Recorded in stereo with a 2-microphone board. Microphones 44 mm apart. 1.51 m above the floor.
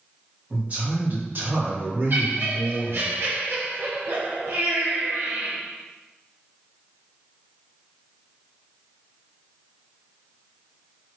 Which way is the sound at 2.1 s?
55° right (ahead or behind).